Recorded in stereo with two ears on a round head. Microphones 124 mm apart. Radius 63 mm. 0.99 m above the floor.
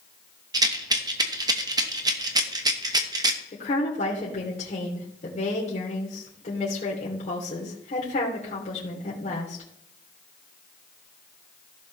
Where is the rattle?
30° right (ahead or behind), 1.0 m.